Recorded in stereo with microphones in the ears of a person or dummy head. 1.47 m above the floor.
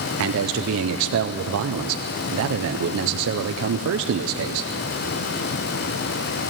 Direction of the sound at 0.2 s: 75° right (ahead or behind).